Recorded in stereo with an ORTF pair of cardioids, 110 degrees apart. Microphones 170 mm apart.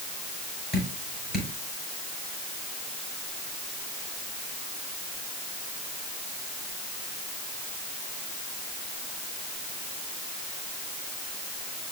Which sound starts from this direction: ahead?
Dripping, at 0.7 s.